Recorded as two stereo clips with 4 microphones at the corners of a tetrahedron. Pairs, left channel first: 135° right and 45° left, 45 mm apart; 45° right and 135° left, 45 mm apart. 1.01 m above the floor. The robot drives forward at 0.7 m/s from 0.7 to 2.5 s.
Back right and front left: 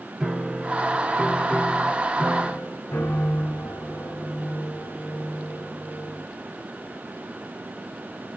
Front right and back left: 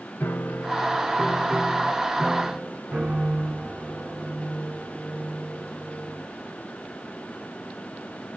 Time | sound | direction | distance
0.2 | a piano | 30° right | 0.7 m